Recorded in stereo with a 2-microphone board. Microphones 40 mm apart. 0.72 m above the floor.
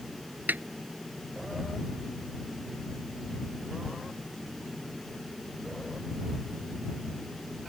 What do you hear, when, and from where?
0.5 s a snare drum: 50° right (ahead or behind)